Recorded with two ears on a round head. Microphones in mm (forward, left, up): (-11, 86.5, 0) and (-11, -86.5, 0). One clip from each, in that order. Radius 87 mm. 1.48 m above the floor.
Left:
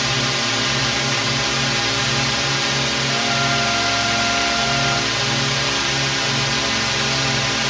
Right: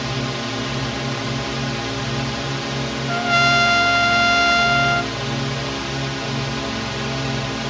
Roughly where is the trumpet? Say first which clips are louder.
Right 7 dB; right.